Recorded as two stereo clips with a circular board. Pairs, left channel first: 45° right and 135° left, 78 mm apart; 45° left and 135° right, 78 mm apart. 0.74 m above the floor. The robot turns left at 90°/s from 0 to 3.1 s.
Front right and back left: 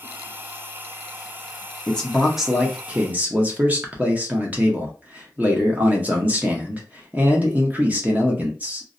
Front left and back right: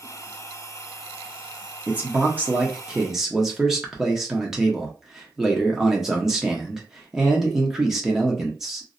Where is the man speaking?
100° right, 0.7 m; by 8.9 s 150° left, 0.7 m.